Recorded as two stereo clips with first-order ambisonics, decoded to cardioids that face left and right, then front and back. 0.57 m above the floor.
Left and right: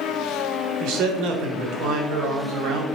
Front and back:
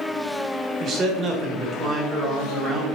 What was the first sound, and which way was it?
A man speaking, 120° right.